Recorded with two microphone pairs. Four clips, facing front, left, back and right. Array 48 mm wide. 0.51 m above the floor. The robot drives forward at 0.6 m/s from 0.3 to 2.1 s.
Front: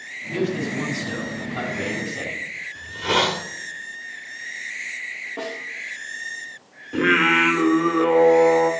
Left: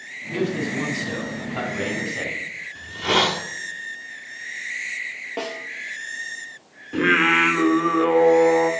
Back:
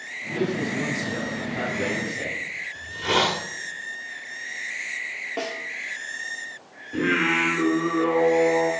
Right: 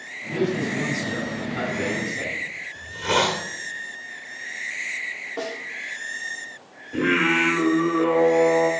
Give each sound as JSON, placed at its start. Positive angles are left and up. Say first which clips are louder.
{"t": 0.3, "sound": "a man speaking", "louder": "even, front 1 dB", "azimuth_deg": 50, "distance_m": 4.5}
{"t": 2.8, "sound": "a hiss", "louder": "left 2 dB, front 2 dB", "azimuth_deg": 75, "distance_m": 1.2}
{"t": 5.4, "sound": "a snare drum", "louder": "left 3 dB, back 2 dB", "azimuth_deg": 130, "distance_m": 1.9}
{"t": 6.9, "sound": "singing", "louder": "left 3 dB, front 5 dB", "azimuth_deg": 45, "distance_m": 1.1}